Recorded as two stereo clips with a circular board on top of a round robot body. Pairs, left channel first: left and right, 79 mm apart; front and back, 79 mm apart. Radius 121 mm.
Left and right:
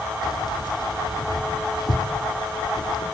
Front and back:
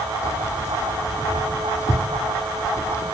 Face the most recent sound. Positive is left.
turn(degrees=55)